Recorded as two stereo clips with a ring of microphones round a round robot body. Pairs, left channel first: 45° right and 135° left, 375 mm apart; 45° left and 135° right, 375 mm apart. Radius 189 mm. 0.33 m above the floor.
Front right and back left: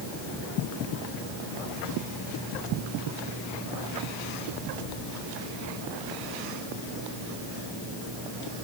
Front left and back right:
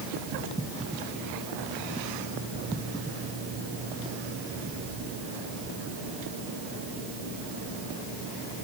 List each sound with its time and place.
Only background noise.